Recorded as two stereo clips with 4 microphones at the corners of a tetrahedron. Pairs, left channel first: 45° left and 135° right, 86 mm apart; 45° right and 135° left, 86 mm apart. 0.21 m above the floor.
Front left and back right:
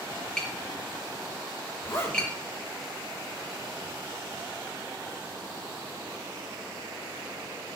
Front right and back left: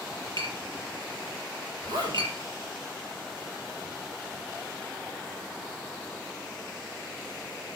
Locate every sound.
0.4 s tapping: 125° left, 5.5 m
1.8 s a zipper: 100° left, 6.5 m